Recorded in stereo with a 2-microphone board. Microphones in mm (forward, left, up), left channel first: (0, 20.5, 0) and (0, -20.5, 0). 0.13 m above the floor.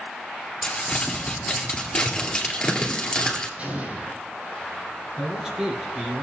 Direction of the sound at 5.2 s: 20° right (ahead or behind).